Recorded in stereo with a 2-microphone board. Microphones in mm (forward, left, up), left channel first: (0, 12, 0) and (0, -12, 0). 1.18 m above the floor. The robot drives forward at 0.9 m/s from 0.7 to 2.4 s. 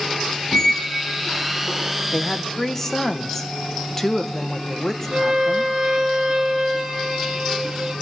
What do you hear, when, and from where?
0.5 s a squeak: 25° left (ahead or behind), 0.7 m; by 2.0 s 10° left (ahead or behind), 1.7 m
2.1 s a woman speaking: 20° left (ahead or behind), 0.8 m; by 5.7 s 15° left (ahead or behind), 1.0 m
5.1 s a violin: 35° right (ahead or behind), 2 m